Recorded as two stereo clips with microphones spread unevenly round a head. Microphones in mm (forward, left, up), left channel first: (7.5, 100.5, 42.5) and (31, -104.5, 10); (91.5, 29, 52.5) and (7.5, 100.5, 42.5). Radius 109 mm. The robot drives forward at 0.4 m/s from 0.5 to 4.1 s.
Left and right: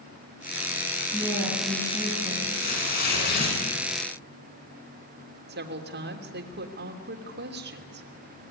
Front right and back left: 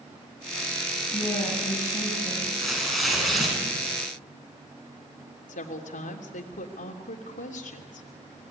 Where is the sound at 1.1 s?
15° left, 8 m.